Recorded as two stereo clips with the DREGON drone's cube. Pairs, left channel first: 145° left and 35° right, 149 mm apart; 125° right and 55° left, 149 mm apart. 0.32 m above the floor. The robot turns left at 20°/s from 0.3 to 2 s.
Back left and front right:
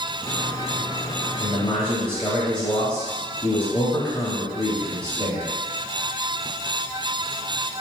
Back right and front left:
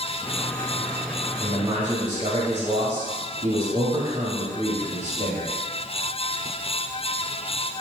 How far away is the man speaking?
About 1.0 m.